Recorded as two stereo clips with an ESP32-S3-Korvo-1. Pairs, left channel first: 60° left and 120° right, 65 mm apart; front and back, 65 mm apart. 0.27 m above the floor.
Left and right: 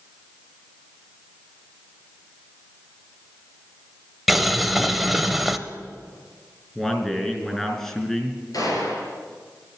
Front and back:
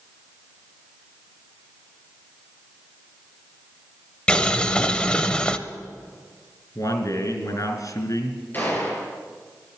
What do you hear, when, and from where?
4.3 s boiling: 40° right, 0.6 m
6.8 s a man speaking: 20° right, 4 m
8.5 s a gunshot: 60° left, 4 m